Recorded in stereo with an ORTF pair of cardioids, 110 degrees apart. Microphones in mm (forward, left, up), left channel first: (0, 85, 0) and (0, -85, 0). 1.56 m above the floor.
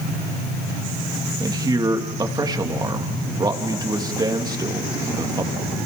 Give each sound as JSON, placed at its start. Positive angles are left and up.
{"t": 1.4, "sound": "a man speaking", "azimuth_deg": -25, "distance_m": 2.5}